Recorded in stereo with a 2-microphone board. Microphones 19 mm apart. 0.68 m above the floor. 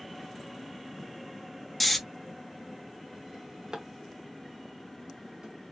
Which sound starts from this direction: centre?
Snoring, at 1.8 s.